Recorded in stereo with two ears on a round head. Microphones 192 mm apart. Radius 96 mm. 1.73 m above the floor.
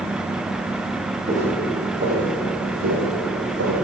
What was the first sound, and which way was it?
Footsteps, 35° right (ahead or behind).